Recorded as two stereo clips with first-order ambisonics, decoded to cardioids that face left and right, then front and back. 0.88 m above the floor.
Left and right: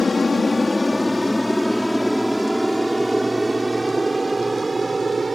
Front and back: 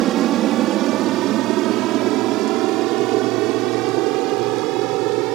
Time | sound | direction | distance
0.0 | an aircraft | 160° left | ?